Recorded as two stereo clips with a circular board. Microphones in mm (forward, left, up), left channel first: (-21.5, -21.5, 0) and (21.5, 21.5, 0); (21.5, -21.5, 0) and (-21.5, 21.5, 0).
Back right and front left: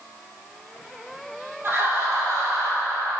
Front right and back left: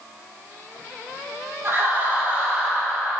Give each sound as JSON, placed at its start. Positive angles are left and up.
{"t": 1.6, "sound": "laughter", "azimuth_deg": 95, "distance_m": 3.0}